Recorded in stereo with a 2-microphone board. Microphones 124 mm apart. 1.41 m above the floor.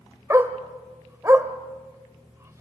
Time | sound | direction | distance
0.3 | a dog barking | 25° right (ahead or behind) | 1.2 m